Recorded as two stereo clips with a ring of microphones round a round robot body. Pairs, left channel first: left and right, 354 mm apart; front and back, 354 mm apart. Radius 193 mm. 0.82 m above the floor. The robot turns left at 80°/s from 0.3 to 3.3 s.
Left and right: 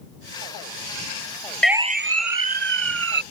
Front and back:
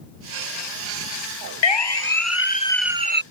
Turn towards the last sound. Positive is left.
turn(degrees=-125)